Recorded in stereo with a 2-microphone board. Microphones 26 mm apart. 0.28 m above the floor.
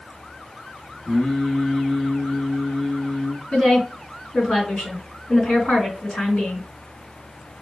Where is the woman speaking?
60° left (ahead or behind), 3.5 m.